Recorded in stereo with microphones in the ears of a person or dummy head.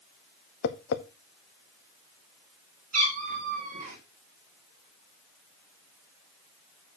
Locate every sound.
0.6 s tapping: 60° left (ahead or behind), 0.8 m
2.9 s a cat meowing: 40° right (ahead or behind), 3 m